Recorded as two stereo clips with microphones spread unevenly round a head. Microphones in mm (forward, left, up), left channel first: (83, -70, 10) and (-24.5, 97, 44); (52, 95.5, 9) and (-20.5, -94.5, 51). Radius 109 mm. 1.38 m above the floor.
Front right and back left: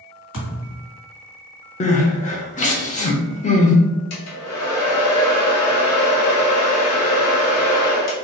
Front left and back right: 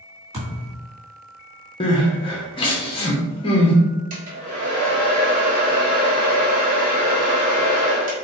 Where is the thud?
45° right, 2.0 m.